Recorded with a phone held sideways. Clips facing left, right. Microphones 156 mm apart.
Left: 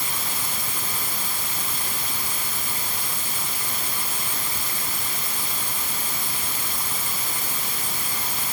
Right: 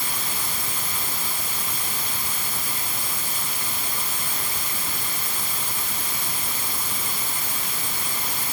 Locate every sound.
Only background noise.